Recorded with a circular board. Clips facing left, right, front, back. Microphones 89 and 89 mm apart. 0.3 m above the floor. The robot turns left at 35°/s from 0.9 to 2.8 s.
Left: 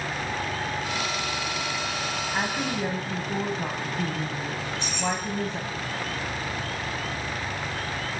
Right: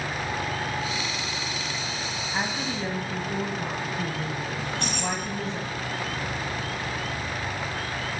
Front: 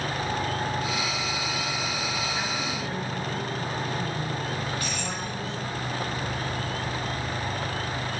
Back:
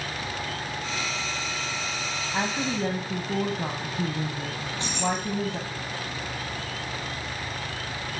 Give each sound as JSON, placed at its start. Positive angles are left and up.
{"t": 2.3, "sound": "a woman speaking", "azimuth_deg": 180, "distance_m": 1.9}
{"t": 4.6, "sound": "keys jangling", "azimuth_deg": -120, "distance_m": 7.5}